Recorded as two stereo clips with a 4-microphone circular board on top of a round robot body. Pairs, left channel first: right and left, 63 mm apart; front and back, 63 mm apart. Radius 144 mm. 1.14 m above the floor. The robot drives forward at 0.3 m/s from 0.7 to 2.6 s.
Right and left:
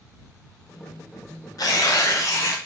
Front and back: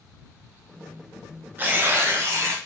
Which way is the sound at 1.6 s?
120° right.